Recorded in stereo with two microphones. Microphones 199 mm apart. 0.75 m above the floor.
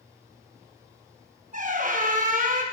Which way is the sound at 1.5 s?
40° right (ahead or behind).